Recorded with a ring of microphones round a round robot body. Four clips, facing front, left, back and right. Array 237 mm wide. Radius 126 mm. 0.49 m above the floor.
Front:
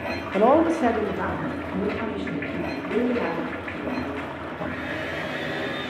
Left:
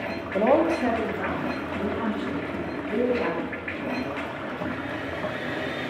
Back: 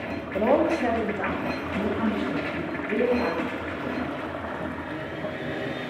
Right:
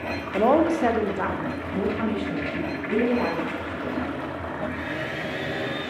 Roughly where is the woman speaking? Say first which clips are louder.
Right 1 dB, front 3 dB; ahead.